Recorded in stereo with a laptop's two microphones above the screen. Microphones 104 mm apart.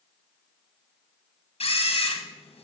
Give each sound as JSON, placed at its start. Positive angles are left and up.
{"t": 1.6, "sound": "a camera shutter", "side_deg": 70, "distance_m": 1.7}